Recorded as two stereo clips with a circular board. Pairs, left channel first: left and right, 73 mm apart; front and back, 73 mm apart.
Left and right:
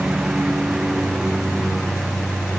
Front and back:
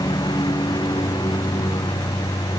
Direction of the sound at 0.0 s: 10° right.